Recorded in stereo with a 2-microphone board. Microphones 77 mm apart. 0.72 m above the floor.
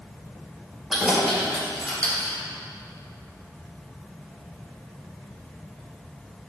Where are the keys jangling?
5° right (ahead or behind), 2 m; by 2.4 s 25° left (ahead or behind), 1.2 m.